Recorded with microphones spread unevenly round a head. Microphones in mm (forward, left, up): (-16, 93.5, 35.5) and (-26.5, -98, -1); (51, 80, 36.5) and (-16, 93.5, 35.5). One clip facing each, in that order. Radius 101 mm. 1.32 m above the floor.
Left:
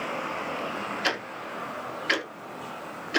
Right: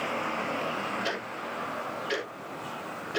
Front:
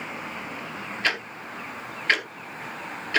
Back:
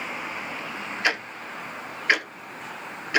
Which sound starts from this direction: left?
Ticking, at 1.0 s.